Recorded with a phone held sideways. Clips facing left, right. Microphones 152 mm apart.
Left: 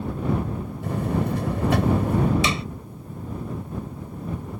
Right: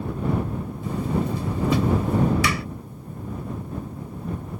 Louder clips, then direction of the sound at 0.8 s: Even; 65° left (ahead or behind).